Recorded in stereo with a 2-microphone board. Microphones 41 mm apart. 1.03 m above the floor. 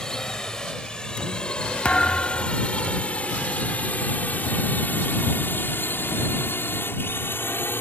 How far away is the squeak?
I don't hear a squeak.